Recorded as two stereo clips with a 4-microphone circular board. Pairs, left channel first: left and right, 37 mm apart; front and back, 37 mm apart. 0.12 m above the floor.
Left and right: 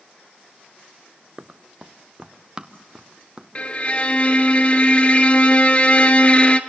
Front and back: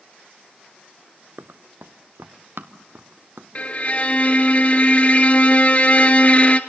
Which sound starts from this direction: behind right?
Running footsteps, at 1.4 s.